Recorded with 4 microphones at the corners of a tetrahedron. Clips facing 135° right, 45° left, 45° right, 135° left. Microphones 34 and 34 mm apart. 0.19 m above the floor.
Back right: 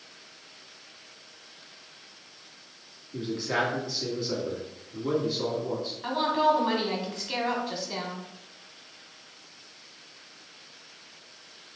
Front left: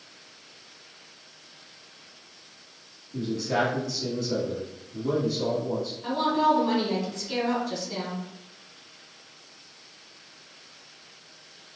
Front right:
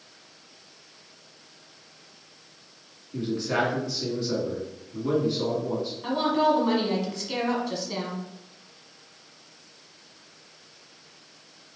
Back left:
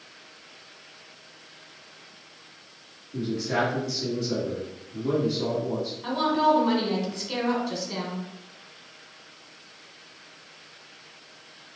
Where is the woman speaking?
130° right, 1.6 m.